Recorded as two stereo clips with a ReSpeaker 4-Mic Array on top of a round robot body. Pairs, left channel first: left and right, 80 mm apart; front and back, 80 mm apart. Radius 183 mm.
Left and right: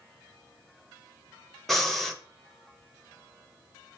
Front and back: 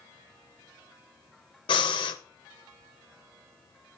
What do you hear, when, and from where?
1.7 s breathing: 5° left, 0.6 m